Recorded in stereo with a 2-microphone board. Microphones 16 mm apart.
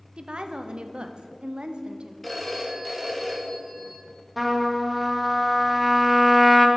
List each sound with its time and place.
0.2 s a woman speaking: 75° right (ahead or behind), 0.5 m
2.2 s a phone ringing: 5° left (ahead or behind), 1.3 m
4.4 s a trumpet: 10° right (ahead or behind), 0.8 m